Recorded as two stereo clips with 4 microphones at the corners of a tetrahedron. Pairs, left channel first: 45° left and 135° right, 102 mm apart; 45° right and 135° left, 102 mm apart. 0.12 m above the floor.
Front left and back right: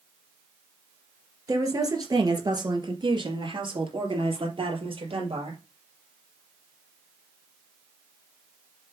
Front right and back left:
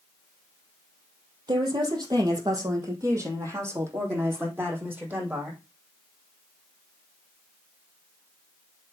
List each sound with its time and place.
1.5 s a woman speaking: 175° left, 2.5 m; by 5.6 s 150° right, 4 m